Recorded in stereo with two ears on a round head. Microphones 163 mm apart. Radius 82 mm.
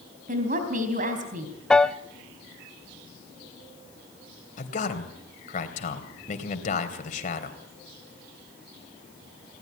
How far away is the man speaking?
About 3 m.